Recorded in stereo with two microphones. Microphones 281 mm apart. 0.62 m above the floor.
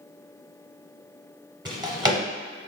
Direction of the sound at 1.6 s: 15° right (ahead or behind).